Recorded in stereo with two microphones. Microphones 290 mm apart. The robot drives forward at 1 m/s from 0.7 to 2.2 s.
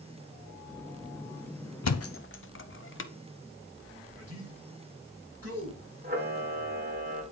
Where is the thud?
75° left (ahead or behind), 0.5 m; by 3.1 s 50° left (ahead or behind), 0.7 m.